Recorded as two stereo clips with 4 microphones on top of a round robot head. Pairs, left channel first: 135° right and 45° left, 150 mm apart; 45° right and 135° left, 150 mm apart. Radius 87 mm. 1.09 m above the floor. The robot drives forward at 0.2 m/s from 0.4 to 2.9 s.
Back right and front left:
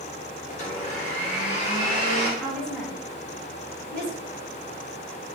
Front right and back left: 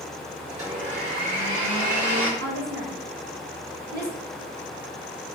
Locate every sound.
0.5 s a blender: 175° left, 1.5 m
2.4 s a woman speaking: 140° left, 1.3 m